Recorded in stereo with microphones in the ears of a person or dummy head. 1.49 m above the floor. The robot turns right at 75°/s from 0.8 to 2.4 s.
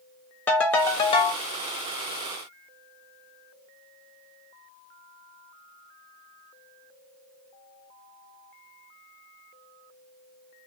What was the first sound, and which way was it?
A ringtone, 15° left.